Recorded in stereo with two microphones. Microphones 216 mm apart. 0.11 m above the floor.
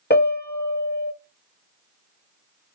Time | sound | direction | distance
0.1 | a piano | 50° left (ahead or behind) | 0.9 m